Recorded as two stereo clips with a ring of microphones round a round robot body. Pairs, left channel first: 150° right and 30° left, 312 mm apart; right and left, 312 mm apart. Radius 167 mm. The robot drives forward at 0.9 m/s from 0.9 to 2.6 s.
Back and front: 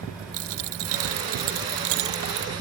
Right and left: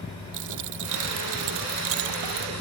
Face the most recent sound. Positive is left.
turn(degrees=70)